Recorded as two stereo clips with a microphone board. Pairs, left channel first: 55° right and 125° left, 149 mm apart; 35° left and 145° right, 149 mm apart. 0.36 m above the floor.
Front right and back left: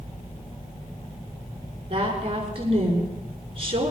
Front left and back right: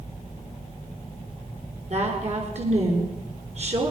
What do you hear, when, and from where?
1.9 s a woman speaking: 175° left, 6.5 m